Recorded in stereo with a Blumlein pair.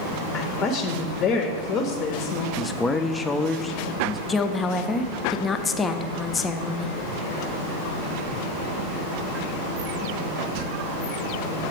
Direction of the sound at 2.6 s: 10° left.